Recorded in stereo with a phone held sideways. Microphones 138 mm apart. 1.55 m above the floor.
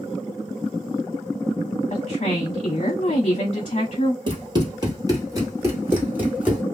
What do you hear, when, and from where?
1.9 s a woman speaking: 55° left (ahead or behind), 1.0 m
4.3 s running footsteps: 35° right (ahead or behind), 1.9 m; by 6.6 s 10° right (ahead or behind), 2 m